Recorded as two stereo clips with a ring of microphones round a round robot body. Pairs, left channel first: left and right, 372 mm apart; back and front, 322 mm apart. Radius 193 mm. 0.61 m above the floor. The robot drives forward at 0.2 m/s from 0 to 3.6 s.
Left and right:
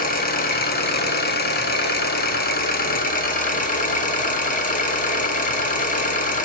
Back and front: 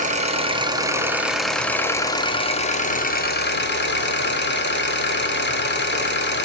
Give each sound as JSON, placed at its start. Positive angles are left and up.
{"t": 0.0, "sound": "an engine running", "azimuth_deg": 45, "distance_m": 0.7}